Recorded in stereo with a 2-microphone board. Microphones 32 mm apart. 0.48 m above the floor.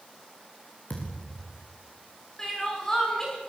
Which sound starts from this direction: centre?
Crying, at 2.4 s.